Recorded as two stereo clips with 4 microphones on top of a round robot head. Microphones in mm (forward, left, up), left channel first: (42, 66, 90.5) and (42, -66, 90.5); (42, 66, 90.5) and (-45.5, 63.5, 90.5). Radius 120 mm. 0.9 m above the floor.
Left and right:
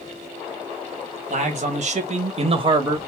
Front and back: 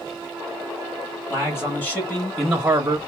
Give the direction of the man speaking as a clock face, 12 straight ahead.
2 o'clock.